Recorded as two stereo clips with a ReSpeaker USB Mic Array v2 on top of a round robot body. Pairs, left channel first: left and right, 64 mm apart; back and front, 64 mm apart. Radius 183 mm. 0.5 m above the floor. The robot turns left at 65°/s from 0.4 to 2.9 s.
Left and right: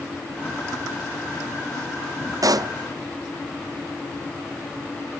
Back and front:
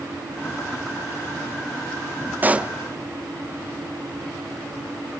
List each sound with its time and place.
2.4 s a pop: 60° right, 0.7 m; by 2.7 s 80° right, 0.7 m